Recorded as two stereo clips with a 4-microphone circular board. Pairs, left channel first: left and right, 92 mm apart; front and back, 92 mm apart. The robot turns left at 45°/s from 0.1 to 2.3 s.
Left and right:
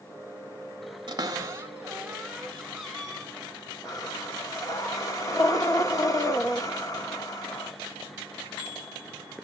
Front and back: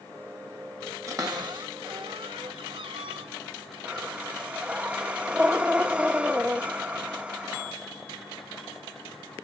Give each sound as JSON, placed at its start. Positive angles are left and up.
{"t": 1.1, "sound": "a cupboard door", "azimuth_deg": -125, "distance_m": 1.9}
{"t": 3.9, "sound": "breathing", "azimuth_deg": 110, "distance_m": 1.3}